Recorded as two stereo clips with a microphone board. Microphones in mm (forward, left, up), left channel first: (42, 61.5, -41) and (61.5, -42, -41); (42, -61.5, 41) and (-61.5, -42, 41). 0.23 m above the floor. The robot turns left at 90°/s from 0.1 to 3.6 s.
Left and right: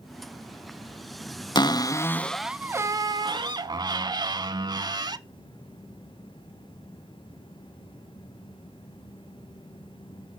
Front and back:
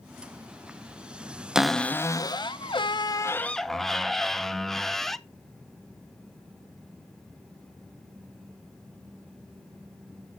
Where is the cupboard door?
90° left, 0.5 m; by 5.2 s 95° right, 0.5 m.